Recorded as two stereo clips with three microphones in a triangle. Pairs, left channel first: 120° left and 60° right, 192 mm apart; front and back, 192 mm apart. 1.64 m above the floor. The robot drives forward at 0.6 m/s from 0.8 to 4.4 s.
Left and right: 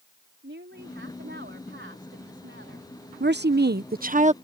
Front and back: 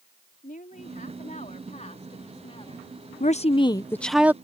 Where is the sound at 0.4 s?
45° right; by 2.9 s 60° right.